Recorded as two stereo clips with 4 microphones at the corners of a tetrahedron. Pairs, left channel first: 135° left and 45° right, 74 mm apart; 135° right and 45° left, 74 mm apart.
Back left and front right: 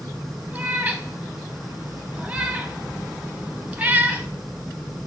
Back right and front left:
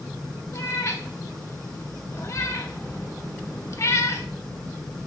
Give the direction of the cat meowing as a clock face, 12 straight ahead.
4 o'clock.